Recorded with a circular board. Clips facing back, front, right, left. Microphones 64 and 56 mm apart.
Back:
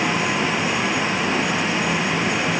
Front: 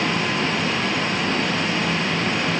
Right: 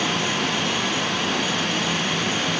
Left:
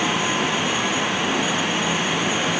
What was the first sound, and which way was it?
Only background noise.